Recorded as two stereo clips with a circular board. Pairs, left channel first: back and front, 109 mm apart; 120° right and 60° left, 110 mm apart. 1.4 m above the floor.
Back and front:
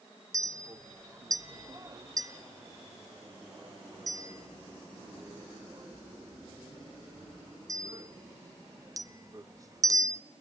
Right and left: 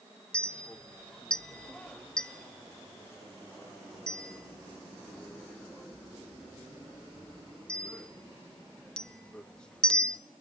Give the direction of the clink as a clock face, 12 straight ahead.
1 o'clock.